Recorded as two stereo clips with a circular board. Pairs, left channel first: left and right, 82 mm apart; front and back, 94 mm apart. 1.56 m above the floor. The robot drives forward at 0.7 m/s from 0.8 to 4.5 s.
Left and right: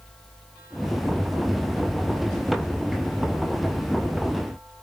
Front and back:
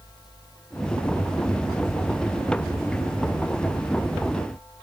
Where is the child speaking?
I don't hear a child speaking.